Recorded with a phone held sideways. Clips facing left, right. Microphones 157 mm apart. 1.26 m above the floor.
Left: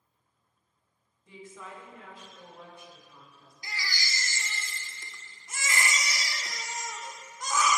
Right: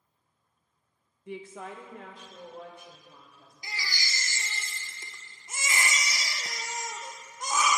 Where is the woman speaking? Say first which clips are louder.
Right 6 dB; 70° right (ahead or behind), 0.8 m; by 3.5 s 55° right (ahead or behind), 3.5 m.